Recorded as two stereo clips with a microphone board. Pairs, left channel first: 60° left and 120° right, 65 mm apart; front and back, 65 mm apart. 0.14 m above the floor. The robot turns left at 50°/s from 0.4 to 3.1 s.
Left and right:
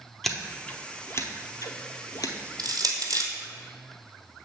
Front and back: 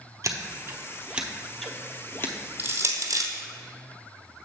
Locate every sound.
0.2 s scissors: 145° left, 0.8 m; by 2.3 s 50° left, 0.8 m
2.6 s crushing: 120° right, 1.1 m; by 3.3 s 145° right, 1.1 m